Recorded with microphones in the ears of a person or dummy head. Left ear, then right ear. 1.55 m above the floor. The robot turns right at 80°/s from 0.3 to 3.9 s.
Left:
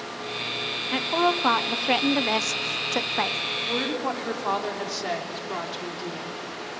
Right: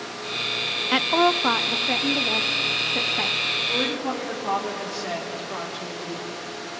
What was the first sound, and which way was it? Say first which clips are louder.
A woman speaking: right 4 dB; 30° right.